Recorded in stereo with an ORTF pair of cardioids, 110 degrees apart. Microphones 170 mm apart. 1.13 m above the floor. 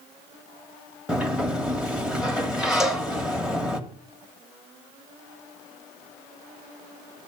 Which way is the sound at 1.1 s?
5° right.